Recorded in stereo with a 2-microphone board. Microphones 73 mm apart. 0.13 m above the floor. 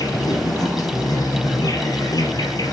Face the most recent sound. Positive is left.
turn(degrees=55)  # may be behind; listen again after turning